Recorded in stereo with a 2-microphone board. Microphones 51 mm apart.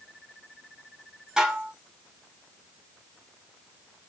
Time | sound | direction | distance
1.4 | dishes clattering | 15° right (ahead or behind) | 0.7 m